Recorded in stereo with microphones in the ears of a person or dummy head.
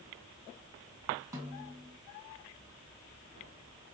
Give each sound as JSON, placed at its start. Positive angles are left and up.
{"t": 1.3, "sound": "a snare drum", "side_deg": -20, "distance_m": 2.5}